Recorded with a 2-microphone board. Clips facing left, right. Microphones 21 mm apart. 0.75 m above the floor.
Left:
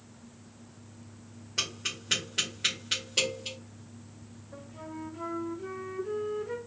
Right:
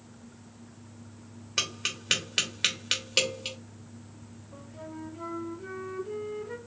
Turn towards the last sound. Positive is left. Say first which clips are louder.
# even
turn(degrees=15)  # may be behind; listen again after turning